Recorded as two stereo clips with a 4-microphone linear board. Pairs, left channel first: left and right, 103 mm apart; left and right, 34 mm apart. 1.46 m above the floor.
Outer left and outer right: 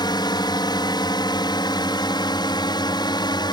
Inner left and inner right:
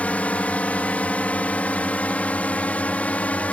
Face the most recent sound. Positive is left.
turn(degrees=45)  # may be behind; listen again after turning